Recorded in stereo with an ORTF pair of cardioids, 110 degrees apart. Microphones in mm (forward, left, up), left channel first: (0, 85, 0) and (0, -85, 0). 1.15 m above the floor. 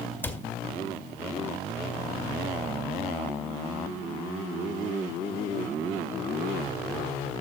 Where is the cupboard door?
10° left, 1.9 m.